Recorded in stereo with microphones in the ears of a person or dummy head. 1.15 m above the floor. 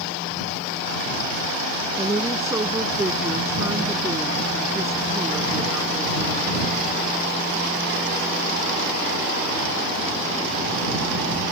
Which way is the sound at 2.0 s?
20° right (ahead or behind).